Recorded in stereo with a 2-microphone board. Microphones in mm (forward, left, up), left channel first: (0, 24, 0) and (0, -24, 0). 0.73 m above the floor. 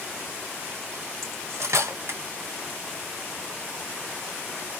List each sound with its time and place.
1.2 s cutlery clinking: 75° right (ahead or behind), 3 m